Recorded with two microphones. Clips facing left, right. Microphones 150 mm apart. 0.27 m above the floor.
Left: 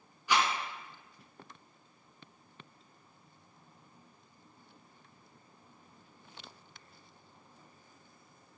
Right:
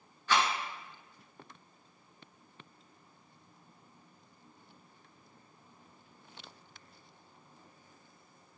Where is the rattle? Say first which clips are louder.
Even; 15° left (ahead or behind), 0.5 m.